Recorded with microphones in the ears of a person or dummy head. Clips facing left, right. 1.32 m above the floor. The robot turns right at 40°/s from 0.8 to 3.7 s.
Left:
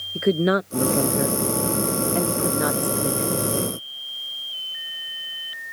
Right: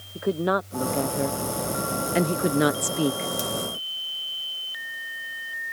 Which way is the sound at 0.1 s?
20° left (ahead or behind).